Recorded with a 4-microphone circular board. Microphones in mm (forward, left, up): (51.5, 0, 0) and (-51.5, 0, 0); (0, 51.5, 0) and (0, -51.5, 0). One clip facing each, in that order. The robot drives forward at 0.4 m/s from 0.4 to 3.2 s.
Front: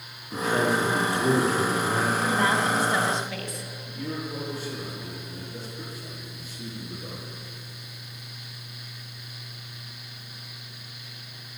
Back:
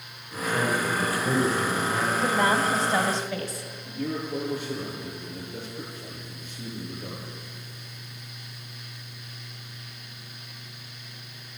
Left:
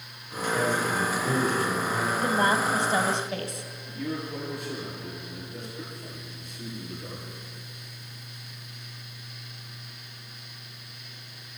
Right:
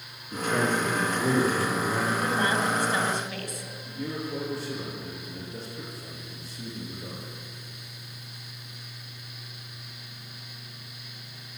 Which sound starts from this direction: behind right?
A man speaking, at 3.9 s.